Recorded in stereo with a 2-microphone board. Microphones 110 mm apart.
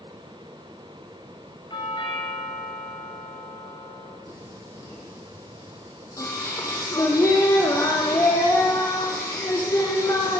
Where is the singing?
30° left (ahead or behind), 4.5 m.